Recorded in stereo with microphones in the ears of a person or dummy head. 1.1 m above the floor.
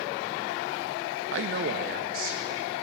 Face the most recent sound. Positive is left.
turn(degrees=-45)  # may be behind; listen again after turning